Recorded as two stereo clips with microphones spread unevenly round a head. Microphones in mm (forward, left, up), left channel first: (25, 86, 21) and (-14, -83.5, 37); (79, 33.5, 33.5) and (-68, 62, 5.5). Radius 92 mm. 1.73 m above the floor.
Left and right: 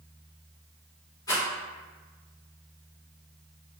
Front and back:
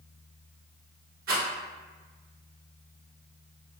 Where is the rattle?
145° left, 1.9 m.